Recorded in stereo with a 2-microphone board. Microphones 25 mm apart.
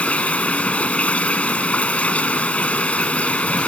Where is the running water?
75° left (ahead or behind).